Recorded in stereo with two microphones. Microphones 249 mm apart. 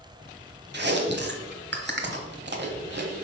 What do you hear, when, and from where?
0.7 s chewing: 45° right (ahead or behind), 1.1 m